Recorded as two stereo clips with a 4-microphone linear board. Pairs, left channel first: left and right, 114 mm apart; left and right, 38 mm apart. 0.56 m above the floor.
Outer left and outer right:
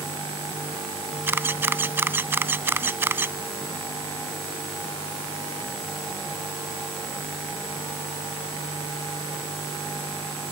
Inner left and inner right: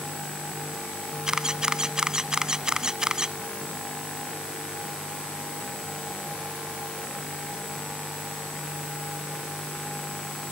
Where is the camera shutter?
20° right (ahead or behind).